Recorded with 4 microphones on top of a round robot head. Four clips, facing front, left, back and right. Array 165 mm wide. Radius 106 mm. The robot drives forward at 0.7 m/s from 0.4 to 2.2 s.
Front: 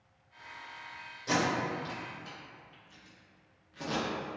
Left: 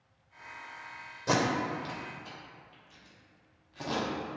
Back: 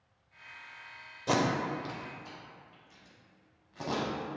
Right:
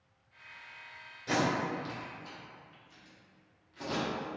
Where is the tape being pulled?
125° left, 0.6 m; by 4.4 s 160° left, 1.0 m.